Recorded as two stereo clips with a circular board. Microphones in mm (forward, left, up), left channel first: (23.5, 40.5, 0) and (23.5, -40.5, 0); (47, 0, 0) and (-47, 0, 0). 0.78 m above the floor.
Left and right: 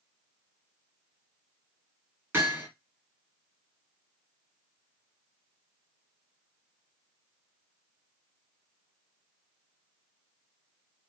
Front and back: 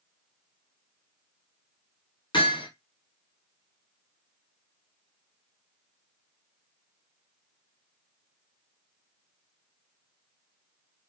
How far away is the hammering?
About 2.5 m.